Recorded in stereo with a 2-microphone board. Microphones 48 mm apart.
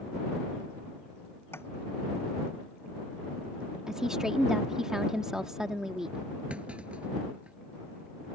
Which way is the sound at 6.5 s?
25° right (ahead or behind).